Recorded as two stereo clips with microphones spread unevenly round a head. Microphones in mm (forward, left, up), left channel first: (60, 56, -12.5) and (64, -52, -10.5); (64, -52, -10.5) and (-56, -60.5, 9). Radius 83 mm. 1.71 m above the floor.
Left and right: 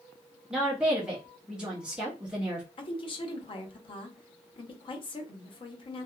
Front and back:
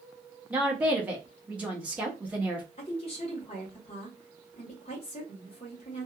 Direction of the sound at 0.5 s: 155° right.